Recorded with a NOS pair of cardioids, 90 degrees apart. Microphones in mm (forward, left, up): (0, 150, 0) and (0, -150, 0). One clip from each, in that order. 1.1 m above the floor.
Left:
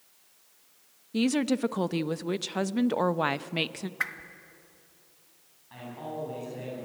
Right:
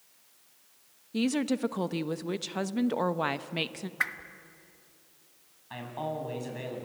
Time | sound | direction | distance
1.1 | a woman speaking | 10° left | 0.8 m
4.0 | a whoosh | 10° right | 1.5 m
5.7 | a man speaking | 65° right | 9 m